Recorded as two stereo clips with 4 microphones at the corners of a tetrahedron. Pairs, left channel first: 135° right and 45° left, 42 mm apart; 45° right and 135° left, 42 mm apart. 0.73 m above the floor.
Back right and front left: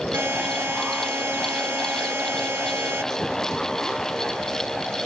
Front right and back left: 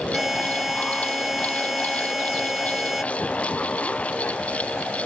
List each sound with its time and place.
0.1 s a buzzer: 50° left